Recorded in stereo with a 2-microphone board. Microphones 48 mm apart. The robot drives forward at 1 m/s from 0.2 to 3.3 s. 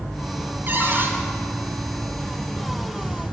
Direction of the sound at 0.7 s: 40° right (ahead or behind).